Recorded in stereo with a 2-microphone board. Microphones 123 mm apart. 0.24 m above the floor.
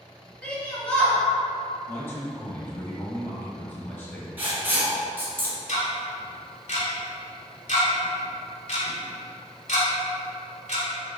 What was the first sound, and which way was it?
A shout, 10° left (ahead or behind).